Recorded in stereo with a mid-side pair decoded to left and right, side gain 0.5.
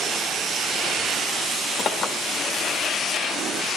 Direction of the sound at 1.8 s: 45° left.